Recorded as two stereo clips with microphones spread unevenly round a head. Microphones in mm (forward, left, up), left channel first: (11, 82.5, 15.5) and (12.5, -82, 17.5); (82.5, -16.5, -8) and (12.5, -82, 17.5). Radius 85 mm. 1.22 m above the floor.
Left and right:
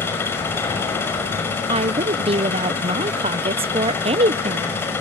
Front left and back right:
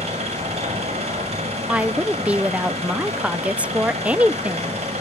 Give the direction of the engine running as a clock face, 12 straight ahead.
6 o'clock.